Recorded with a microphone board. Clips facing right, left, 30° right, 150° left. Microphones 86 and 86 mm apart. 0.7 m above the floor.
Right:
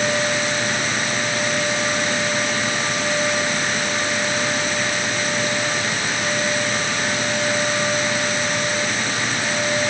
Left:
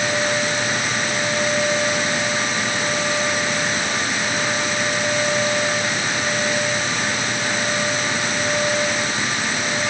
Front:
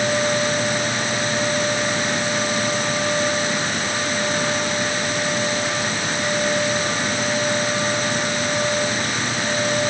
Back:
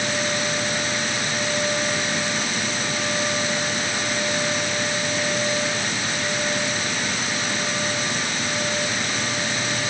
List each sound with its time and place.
Only background noise.